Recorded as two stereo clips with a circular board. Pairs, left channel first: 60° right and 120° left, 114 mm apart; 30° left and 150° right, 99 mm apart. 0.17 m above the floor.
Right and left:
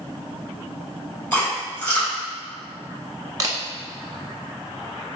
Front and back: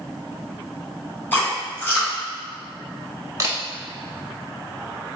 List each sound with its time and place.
1.3 s chewing: 5° right, 1.9 m
3.4 s a camera shutter: 170° left, 0.7 m